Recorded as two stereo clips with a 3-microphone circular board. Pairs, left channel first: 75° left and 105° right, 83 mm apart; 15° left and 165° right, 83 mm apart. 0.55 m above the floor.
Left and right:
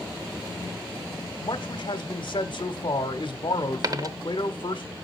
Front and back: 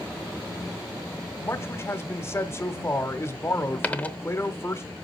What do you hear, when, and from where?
1.4 s a man speaking: 70° left, 1.2 m
3.8 s a dropped coin: 55° right, 0.7 m